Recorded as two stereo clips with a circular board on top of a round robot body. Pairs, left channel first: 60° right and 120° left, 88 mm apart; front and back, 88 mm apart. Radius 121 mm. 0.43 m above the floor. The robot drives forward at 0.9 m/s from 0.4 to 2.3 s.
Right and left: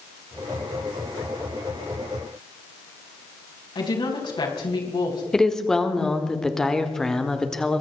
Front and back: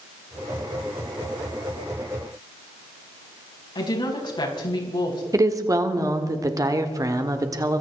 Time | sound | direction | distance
3.8 | a woman speaking | 30° right | 5 m
5.3 | a woman speaking | 145° right | 1.7 m